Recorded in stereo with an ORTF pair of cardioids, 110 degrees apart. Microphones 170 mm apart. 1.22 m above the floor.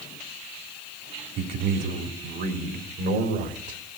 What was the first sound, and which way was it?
A man speaking, 60° right.